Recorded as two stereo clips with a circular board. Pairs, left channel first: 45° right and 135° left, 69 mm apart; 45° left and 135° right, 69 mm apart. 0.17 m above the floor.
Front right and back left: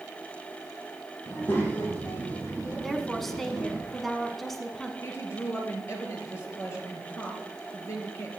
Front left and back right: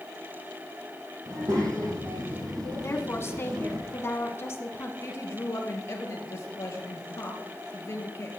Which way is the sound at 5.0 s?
5° right.